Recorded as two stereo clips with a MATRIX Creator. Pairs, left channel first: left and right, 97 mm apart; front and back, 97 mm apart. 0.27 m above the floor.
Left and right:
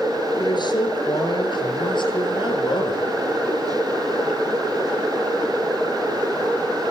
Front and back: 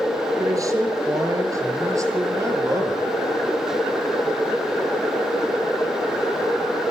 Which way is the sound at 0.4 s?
125° left.